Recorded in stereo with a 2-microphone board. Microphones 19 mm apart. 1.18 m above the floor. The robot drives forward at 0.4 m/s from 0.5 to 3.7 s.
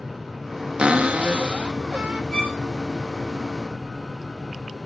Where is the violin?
30° left (ahead or behind), 7.5 m.